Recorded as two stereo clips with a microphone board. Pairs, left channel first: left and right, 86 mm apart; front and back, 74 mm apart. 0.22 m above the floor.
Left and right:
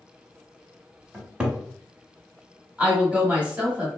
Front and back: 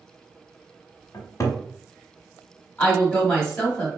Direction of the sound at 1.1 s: 15° right.